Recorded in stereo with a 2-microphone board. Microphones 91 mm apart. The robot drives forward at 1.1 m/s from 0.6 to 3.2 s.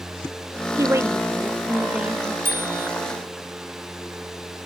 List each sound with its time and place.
0.8 s a woman speaking: 35° right (ahead or behind); by 2.4 s 10° right (ahead or behind)
2.5 s a bicycle bell: 25° right (ahead or behind); by 2.9 s 30° right (ahead or behind)